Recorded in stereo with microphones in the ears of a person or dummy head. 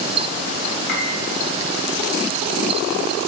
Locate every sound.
0.9 s a piano: 70° left (ahead or behind), 3 m